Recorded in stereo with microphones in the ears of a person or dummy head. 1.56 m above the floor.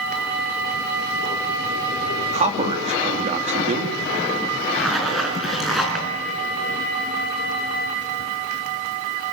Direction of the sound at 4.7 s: Centre (ahead or behind).